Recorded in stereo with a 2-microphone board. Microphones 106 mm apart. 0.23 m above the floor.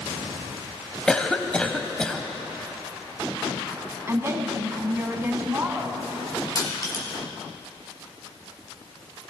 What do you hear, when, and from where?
1.1 s a cough: 10° left (ahead or behind), 1.0 m
4.1 s a woman speaking: 25° right (ahead or behind), 1.9 m
6.5 s crushing: 40° left (ahead or behind), 3.5 m